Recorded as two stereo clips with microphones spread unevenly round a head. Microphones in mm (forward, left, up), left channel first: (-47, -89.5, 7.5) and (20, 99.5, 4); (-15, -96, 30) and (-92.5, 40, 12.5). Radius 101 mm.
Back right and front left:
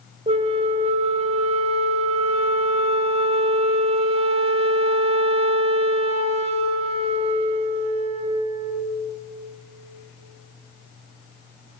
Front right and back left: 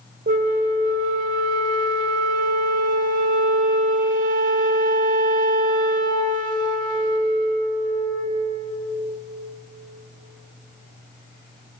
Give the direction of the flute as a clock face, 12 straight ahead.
8 o'clock.